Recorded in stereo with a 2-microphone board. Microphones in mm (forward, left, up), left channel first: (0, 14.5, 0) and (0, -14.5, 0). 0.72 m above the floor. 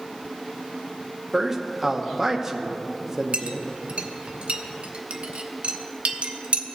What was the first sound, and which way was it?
A man speaking, 10° right (ahead or behind).